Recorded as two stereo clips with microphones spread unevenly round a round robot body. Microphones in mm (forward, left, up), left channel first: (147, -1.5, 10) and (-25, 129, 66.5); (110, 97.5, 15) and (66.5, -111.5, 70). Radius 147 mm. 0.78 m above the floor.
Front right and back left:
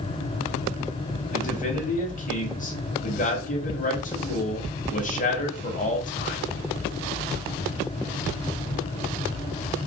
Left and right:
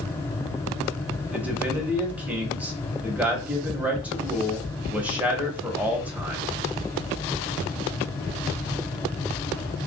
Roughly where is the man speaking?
Ahead.